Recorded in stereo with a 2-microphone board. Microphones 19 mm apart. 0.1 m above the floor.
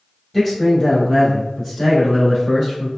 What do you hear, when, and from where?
0.3 s a man speaking: 5° left (ahead or behind), 1.4 m